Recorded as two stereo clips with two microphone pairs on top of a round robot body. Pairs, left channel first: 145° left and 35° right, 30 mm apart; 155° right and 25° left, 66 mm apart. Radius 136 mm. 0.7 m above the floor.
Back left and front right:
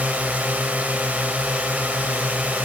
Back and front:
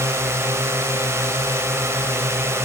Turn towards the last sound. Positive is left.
turn(degrees=-20)